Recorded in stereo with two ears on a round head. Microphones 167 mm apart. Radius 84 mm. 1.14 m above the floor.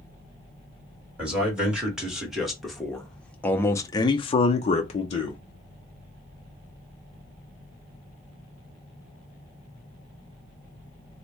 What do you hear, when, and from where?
1.2 s a man speaking: 5° right (ahead or behind), 1.9 m; by 5.4 s 35° left (ahead or behind), 0.7 m